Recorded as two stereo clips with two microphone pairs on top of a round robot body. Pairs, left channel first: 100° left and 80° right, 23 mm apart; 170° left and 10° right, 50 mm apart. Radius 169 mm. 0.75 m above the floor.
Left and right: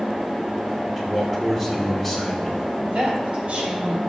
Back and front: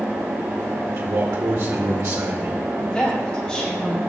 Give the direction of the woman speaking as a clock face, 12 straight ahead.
4 o'clock.